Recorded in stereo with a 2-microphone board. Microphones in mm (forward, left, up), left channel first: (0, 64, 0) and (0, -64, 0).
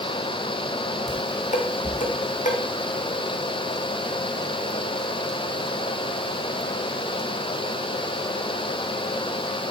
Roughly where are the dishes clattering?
Left.